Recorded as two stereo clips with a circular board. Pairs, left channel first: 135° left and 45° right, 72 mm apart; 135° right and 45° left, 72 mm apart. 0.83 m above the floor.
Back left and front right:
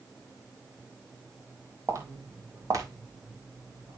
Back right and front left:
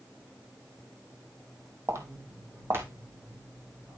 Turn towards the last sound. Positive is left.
turn(degrees=-15)